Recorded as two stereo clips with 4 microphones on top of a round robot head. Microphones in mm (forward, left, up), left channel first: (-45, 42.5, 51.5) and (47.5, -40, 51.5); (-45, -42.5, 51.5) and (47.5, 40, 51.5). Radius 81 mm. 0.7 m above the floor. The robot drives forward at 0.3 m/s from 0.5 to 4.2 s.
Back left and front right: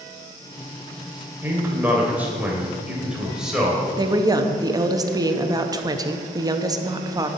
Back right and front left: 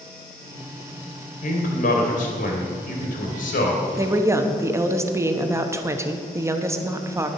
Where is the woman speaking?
10° right, 1.0 m.